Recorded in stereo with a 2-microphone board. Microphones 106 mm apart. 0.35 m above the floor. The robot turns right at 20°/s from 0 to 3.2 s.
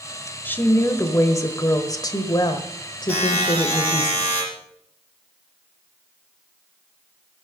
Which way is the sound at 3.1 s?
15° left (ahead or behind).